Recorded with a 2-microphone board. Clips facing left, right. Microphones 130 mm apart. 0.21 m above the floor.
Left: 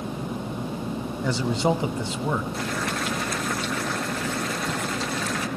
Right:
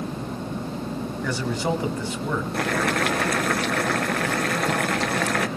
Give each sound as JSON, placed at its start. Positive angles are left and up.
{"t": 1.2, "sound": "a man speaking", "side_deg": 20, "distance_m": 1.3}
{"t": 2.5, "sound": "boiling", "side_deg": -70, "distance_m": 1.7}